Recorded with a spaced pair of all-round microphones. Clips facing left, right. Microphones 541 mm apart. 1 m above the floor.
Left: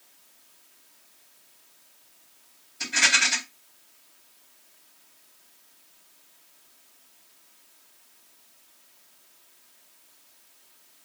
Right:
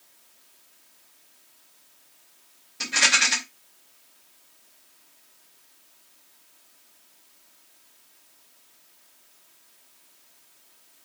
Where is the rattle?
80° right, 3 m.